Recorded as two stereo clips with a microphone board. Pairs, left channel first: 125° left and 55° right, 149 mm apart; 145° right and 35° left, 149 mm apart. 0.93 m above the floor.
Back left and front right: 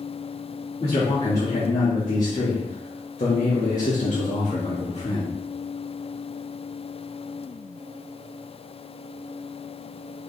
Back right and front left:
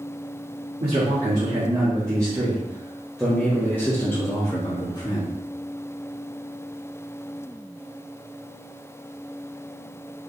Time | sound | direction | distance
0.8 | a man speaking | 80° left | 1.8 m